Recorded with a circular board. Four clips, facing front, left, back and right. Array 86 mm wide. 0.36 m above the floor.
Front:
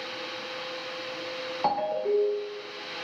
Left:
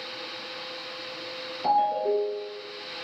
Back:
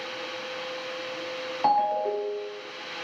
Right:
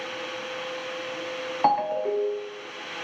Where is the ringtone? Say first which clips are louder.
Even, back 3 dB; 100° right, 1.1 m.